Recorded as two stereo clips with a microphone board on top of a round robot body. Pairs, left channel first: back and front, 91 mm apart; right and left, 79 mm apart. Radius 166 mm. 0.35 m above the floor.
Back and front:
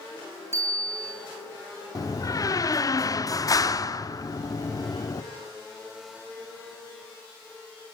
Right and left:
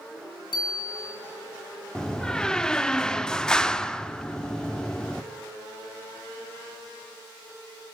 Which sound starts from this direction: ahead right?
A bicycle bell, at 0.5 s.